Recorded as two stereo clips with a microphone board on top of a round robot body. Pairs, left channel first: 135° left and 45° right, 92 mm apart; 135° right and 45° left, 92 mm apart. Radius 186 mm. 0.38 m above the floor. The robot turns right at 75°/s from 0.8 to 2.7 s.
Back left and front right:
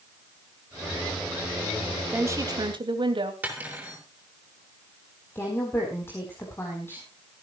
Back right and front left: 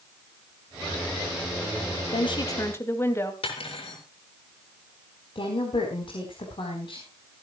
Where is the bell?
I don't hear a bell.